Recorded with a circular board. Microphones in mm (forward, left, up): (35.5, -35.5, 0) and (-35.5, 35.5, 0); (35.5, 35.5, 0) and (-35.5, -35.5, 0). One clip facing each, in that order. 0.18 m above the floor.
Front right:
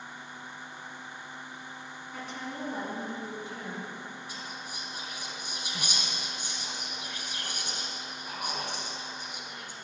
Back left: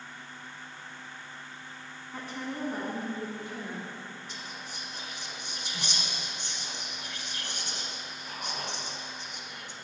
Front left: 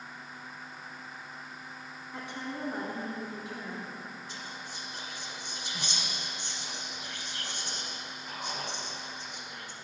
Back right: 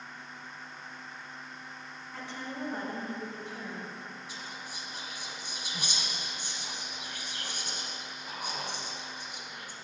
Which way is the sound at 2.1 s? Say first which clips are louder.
Back left 2 dB, front left 1 dB; 105° left.